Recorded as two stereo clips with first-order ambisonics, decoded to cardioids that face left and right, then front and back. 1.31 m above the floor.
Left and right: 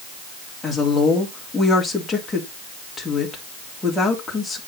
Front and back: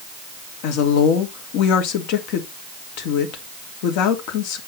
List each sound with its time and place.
0.6 s a woman speaking: 5° left, 2.5 m